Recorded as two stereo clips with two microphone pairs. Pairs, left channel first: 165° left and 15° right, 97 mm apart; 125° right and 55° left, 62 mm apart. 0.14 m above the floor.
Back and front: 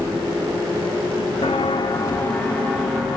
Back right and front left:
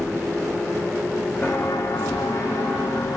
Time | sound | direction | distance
1.4 | footsteps | 175° left | 0.5 m